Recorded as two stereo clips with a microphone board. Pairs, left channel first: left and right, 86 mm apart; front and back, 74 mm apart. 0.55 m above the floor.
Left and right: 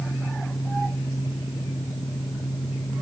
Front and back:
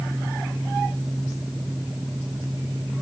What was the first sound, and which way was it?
Only background noise.